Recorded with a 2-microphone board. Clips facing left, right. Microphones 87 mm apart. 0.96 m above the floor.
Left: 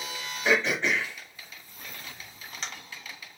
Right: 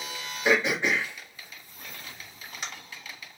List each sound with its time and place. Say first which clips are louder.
0.5 s throat clearing: right 1 dB; 10° right (ahead or behind), 1.4 m